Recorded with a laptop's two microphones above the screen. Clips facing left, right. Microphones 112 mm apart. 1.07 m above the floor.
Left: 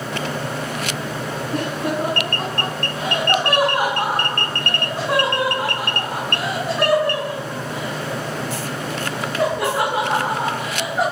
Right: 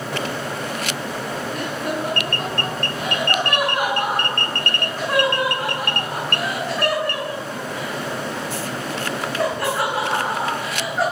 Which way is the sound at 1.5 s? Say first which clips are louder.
Left 5 dB; 30° left (ahead or behind).